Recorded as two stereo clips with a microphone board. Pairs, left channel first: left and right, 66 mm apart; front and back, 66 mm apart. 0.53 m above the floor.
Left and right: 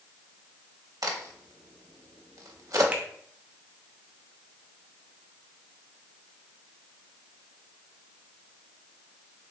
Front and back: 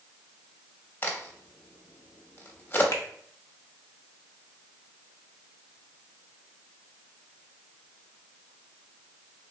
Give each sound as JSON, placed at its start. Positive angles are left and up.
{"t": 1.0, "sound": "a crack", "azimuth_deg": -60, "distance_m": 0.7}
{"t": 2.9, "sound": "a finger snap", "azimuth_deg": -25, "distance_m": 0.7}